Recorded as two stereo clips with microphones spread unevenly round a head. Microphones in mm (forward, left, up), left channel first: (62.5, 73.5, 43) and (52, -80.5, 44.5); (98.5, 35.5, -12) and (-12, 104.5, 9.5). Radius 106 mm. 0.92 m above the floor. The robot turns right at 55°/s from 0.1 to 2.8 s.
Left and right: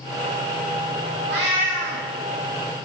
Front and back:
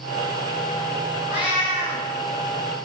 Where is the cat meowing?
135° right, 0.5 m; by 2.0 s 90° right, 0.5 m.